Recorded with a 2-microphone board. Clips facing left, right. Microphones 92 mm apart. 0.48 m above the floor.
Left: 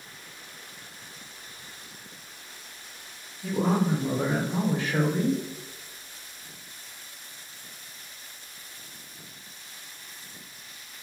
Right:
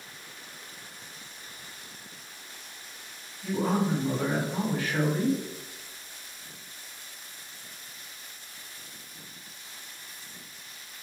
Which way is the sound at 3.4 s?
25° left (ahead or behind).